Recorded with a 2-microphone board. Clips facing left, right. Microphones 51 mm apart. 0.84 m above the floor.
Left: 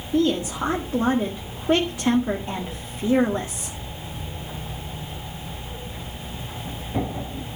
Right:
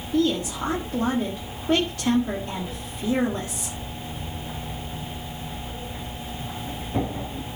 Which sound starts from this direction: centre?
A woman speaking, at 0.1 s.